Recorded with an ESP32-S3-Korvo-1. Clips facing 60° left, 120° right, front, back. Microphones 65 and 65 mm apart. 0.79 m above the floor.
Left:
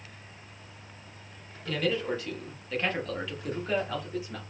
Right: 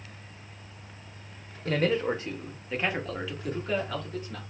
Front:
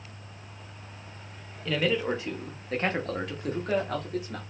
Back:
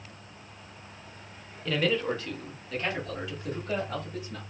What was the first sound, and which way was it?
A man speaking, 90° right.